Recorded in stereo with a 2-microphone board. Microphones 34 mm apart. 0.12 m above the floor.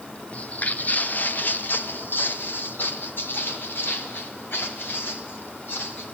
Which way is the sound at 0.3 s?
45° left (ahead or behind).